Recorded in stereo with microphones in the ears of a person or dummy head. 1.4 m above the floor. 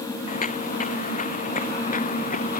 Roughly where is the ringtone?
No ringtone in this recording.